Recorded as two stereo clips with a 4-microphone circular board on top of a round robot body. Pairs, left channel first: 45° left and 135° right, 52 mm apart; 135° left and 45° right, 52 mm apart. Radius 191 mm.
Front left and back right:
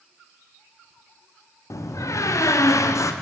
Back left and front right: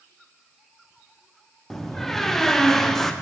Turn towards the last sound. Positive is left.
turn(degrees=50)